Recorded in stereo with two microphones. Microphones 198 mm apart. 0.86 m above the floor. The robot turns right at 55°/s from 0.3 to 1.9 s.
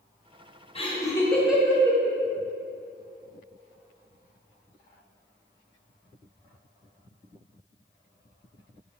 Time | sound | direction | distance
0.8 | laughter | 30° left (ahead or behind) | 0.7 m